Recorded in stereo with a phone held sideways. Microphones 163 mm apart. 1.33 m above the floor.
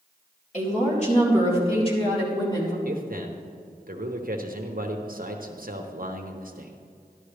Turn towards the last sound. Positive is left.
turn(degrees=-60)  # may be behind; listen again after turning